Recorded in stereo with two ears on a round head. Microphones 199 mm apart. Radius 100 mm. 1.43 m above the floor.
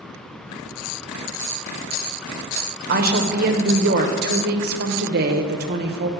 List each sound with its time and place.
2.9 s a woman speaking: 45° right (ahead or behind), 1.0 m